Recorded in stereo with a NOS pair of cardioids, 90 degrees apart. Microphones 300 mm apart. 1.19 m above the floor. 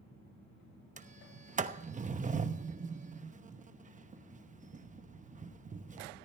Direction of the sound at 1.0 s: 25° right.